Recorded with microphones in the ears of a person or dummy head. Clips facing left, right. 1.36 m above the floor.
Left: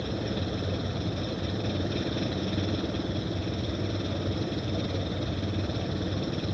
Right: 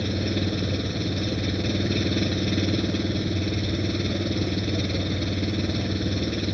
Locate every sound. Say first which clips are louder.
0.0 s an engine running: right 5 dB; 30° right (ahead or behind)